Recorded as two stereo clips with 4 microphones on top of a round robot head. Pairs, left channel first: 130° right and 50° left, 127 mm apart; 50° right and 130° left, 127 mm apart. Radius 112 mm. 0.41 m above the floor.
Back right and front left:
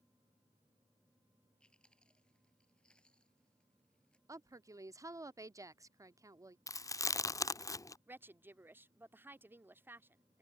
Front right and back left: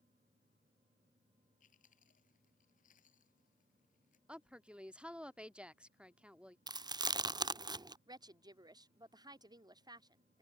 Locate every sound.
1.6 s chewing: 45° right
4.3 s a woman speaking: 60° left
6.7 s chewing: 175° left
8.1 s a woman speaking: 110° left